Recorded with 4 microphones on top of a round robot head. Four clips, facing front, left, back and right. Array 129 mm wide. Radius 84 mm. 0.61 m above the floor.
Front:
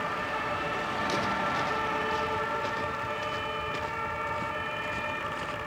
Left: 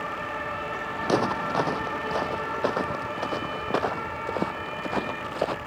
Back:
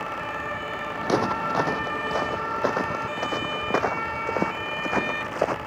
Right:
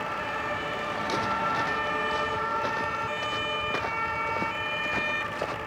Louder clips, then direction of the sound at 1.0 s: Left 5 dB, back 8 dB; 140° left.